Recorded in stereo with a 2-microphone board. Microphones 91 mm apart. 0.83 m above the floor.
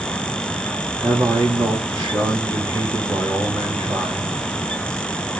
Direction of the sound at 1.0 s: 45° right (ahead or behind).